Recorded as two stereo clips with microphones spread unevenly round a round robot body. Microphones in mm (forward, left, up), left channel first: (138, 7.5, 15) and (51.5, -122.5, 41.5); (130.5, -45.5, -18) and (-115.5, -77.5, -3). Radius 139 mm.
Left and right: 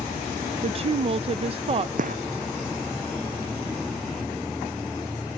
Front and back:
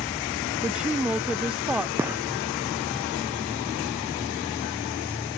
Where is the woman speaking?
85° right.